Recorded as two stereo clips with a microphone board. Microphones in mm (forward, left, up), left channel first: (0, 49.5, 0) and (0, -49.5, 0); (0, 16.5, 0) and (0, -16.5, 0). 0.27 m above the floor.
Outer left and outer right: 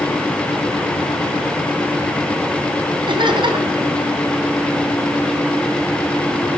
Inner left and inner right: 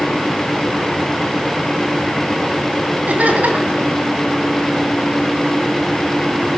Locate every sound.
3.1 s laughter: 55° right (ahead or behind), 2 m